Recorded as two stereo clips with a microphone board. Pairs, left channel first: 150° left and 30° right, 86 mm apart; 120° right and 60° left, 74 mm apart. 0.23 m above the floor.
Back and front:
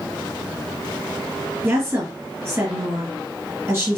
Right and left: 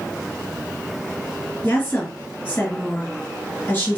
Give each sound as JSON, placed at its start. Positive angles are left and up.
{"t": 1.6, "sound": "a woman speaking", "azimuth_deg": -75, "distance_m": 1.9}